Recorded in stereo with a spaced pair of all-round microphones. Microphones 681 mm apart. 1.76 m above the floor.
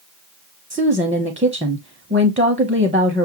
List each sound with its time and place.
0.7 s a woman speaking: 10° right (ahead or behind), 0.6 m